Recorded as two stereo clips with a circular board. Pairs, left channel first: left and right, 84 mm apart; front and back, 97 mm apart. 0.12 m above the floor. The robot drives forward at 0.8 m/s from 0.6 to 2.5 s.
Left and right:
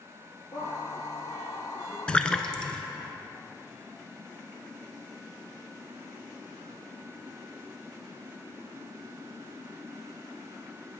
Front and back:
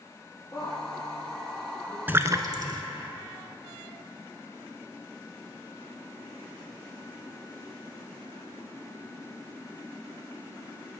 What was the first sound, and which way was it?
A woman speaking, 75° left.